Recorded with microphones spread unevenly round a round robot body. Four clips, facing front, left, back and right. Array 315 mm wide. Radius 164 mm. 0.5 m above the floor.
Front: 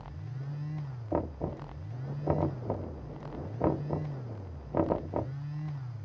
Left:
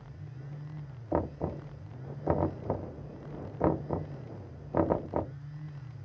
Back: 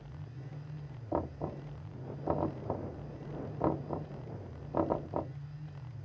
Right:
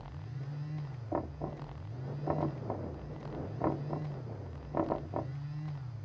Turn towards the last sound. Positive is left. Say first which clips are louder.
# left 5 dB, front 3 dB
turn(degrees=50)